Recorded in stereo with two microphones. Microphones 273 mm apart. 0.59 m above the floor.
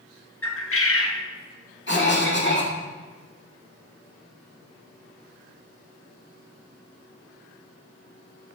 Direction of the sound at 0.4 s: 55° left (ahead or behind).